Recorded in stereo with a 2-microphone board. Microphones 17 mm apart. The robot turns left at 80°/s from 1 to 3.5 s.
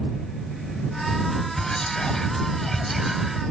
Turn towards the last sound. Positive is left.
turn(degrees=-40)